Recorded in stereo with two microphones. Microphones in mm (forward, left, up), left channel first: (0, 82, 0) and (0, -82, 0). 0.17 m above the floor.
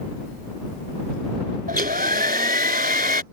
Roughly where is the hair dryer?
Right.